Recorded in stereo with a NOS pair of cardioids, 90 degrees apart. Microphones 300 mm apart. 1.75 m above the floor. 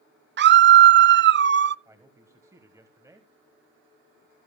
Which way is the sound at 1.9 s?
10° right.